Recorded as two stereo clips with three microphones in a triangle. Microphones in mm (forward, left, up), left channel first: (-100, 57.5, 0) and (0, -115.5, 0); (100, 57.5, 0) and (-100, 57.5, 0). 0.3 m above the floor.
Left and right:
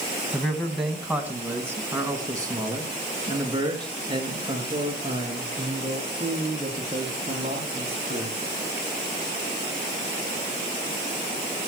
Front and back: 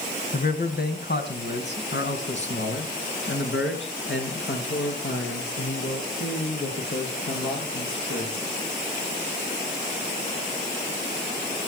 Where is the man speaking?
35° left, 2.5 m; by 8.3 s straight ahead, 9 m.